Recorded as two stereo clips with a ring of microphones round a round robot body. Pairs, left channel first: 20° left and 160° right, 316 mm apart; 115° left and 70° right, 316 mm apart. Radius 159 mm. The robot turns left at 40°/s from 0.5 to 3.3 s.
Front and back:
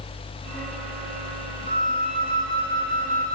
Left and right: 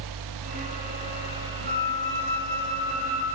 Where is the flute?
45° right, 9 m; by 3.4 s 110° right, 9 m.